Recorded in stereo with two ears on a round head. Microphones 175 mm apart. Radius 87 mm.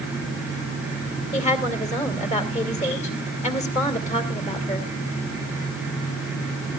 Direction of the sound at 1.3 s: 35° left (ahead or behind).